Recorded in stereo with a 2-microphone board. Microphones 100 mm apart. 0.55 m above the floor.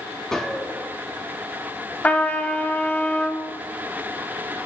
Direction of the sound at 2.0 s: 15° left (ahead or behind).